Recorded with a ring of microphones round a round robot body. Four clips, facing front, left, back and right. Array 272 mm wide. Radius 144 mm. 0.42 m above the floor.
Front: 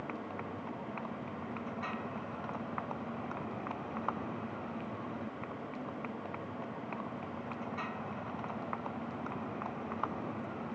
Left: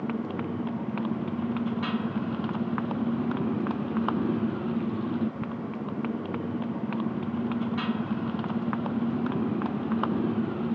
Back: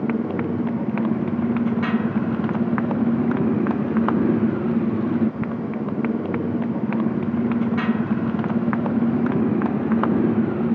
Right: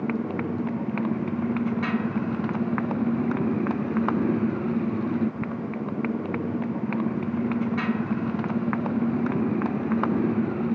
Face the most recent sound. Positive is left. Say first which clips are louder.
# right 3 dB, back 18 dB
turn(degrees=-170)